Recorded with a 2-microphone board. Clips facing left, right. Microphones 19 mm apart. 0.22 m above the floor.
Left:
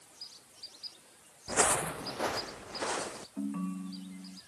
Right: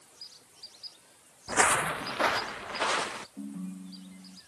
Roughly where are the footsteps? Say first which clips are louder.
Right 4 dB; right.